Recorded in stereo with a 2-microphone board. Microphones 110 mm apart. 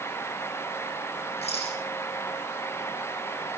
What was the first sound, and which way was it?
A rattle, 70° left (ahead or behind).